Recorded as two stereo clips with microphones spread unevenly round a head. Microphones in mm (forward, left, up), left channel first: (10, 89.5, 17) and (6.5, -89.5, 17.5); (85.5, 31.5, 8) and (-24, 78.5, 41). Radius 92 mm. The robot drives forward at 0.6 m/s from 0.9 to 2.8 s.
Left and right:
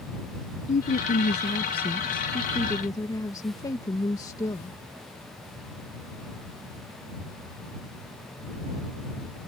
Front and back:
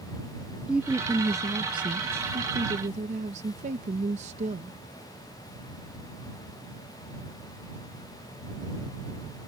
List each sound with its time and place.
0.7 s a woman speaking: 100° left; by 4.8 s 160° left